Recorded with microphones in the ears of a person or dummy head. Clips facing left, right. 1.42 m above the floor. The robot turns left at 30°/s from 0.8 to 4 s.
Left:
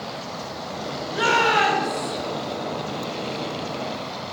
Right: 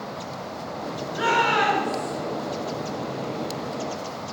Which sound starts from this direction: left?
A shout, at 1.1 s.